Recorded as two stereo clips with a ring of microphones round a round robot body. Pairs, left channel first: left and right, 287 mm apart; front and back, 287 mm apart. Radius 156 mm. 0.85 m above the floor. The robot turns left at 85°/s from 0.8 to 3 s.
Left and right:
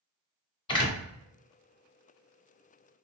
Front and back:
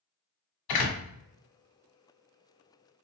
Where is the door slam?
15° left, 1.3 m; by 1.0 s straight ahead, 1.3 m.